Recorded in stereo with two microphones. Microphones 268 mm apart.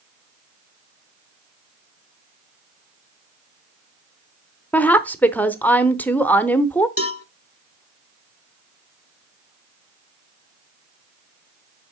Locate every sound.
4.7 s a woman speaking: 5° left (ahead or behind), 0.8 m
7.0 s a cowbell: 55° left (ahead or behind), 0.8 m